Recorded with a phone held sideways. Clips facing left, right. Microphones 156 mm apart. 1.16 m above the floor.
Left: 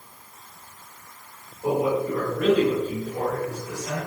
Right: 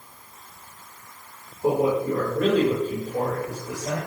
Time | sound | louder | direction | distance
1.6 | a man speaking | right 2 dB | 35° right (ahead or behind) | 5.5 m